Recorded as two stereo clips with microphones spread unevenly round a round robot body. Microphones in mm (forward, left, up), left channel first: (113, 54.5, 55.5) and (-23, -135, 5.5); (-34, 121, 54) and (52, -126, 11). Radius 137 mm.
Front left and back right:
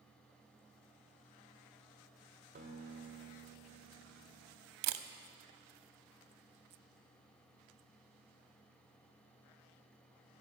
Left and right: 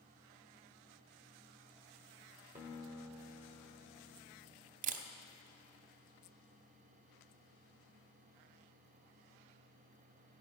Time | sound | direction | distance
2.5 | a guitar | 140° right | 1.3 m
4.8 | a camera shutter | 135° right | 0.6 m